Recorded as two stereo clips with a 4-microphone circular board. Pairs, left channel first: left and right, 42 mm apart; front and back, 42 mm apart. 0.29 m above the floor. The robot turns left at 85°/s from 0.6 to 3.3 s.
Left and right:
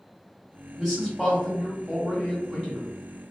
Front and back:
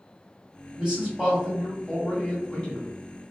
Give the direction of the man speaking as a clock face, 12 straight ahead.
6 o'clock.